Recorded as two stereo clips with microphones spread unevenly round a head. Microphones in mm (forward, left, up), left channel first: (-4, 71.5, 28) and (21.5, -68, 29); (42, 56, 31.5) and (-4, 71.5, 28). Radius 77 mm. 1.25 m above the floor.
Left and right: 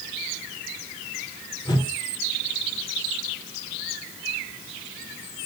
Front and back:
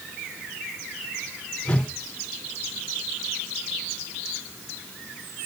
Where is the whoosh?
40° left, 1.3 m.